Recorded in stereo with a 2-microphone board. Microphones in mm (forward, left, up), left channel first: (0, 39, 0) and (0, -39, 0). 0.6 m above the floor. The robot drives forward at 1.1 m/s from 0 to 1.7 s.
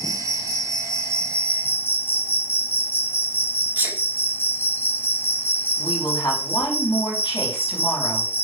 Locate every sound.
0.0 s an insect: 5° left (ahead or behind), 2.5 m; by 8.4 s 30° left (ahead or behind), 0.5 m
3.8 s a sneeze: 25° right (ahead or behind), 1.7 m
5.8 s a woman speaking: 70° left (ahead or behind), 4.5 m